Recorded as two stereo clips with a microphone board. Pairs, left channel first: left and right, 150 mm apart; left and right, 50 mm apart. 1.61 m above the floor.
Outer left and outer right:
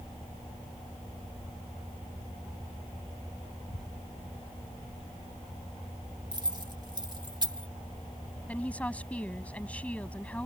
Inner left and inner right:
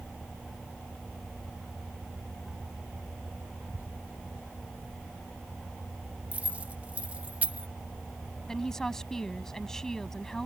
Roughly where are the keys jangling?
Right.